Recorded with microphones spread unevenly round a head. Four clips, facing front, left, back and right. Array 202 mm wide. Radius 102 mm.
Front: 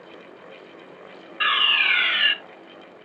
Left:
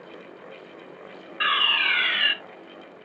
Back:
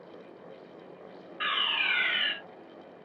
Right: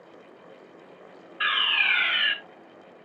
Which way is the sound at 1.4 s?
90° left.